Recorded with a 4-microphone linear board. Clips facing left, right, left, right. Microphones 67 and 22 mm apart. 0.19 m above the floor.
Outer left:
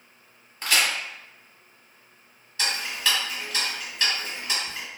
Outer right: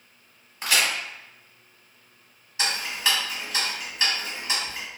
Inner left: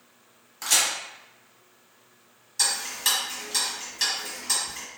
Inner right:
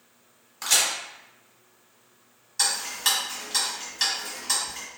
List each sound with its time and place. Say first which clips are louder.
0.6 s a crack: even, even; 10° right (ahead or behind), 1.1 m
2.6 s ticking: outer right 1 dB, inner right 1 dB; 10° right (ahead or behind), 1.3 m